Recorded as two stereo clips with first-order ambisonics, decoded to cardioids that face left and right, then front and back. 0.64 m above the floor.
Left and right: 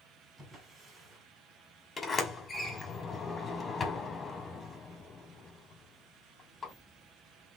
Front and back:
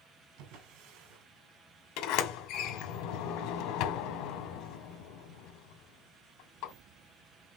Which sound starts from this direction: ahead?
A sliding door, at 2.0 s.